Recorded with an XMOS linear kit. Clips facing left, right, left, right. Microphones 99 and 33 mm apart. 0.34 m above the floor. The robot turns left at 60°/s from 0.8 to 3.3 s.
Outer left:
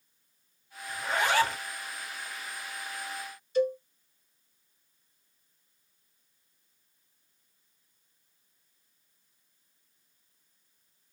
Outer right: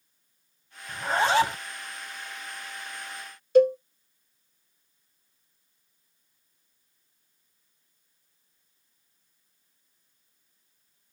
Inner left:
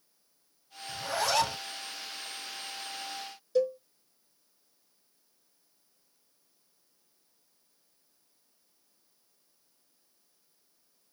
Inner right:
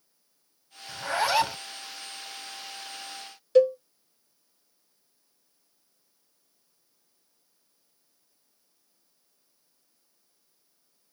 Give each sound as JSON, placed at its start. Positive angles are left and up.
{"t": 0.9, "sound": "a zipper", "azimuth_deg": -125, "distance_m": 0.7}
{"t": 3.5, "sound": "a cowbell", "side_deg": -65, "distance_m": 0.5}